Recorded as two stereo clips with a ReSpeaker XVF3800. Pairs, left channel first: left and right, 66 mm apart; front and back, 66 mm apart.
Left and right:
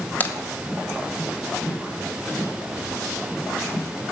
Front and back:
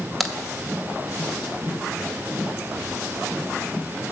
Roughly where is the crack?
Left.